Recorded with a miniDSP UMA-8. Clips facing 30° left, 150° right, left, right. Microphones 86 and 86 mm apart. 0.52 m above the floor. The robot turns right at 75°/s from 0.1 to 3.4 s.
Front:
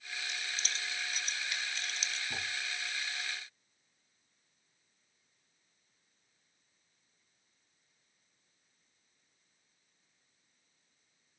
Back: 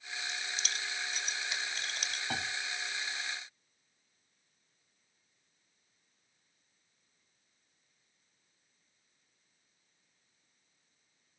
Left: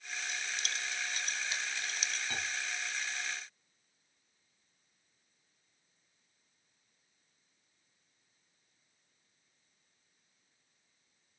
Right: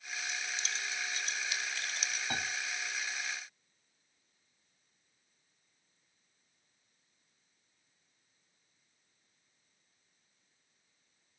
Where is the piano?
150° right, 1.3 m; by 2.5 s 130° right, 1.3 m.